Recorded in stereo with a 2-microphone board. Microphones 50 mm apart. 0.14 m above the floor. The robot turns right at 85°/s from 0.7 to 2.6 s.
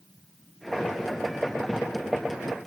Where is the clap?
I don't hear a clap.